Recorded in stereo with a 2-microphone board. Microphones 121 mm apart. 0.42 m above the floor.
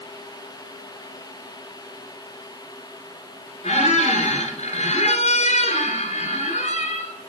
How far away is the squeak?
About 1.9 m.